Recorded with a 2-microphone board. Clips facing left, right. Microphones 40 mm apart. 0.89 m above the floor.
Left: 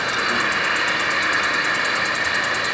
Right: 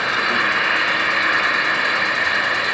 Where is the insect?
15° right (ahead or behind), 0.9 m.